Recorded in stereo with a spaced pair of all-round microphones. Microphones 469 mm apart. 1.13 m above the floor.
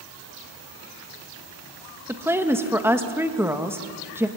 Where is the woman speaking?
5° right (ahead or behind), 1.5 m.